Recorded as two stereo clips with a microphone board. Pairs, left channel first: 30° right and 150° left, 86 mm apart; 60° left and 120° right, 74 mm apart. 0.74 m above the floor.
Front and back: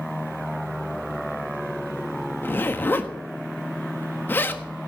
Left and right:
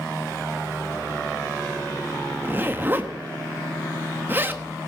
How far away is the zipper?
About 1.3 m.